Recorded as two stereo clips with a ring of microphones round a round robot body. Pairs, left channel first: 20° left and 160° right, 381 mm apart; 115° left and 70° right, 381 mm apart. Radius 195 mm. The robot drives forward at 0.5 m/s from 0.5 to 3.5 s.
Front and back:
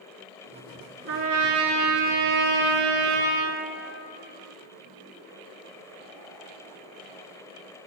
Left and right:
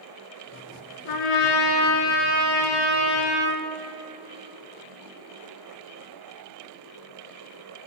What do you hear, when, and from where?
1.1 s a trumpet: 145° left, 1.1 m; by 3.6 s 165° left, 2 m